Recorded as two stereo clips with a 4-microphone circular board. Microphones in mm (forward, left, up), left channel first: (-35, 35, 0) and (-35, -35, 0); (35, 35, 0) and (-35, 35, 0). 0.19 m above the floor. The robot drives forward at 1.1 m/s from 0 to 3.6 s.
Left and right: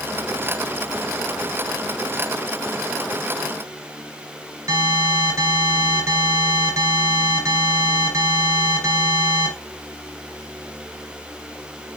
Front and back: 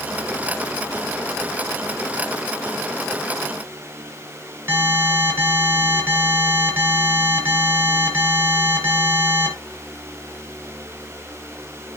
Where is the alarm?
130° right, 2.5 m.